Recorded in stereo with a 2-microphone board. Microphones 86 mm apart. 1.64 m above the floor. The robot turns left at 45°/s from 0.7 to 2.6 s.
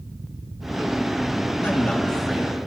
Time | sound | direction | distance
1.6 | a man speaking | 30° left | 2.5 m